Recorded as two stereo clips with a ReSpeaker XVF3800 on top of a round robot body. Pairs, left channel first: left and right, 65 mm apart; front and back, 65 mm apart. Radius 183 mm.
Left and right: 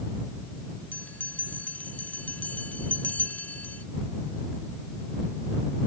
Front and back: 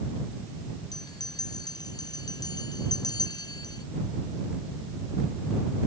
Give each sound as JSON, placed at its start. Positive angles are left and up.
{"t": 0.9, "sound": "a bell", "azimuth_deg": 20}